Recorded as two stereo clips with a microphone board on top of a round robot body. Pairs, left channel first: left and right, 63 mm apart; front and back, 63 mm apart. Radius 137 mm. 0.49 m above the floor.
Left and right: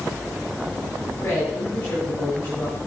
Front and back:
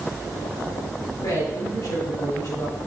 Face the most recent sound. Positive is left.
turn(degrees=30)